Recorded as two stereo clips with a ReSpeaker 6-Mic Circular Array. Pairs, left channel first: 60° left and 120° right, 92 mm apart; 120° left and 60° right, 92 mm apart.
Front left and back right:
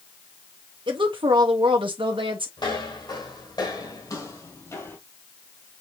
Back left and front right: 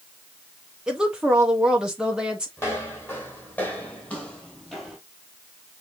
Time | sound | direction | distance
0.9 | a woman speaking | 140° right | 1.0 m
2.6 | footsteps | 65° left | 3 m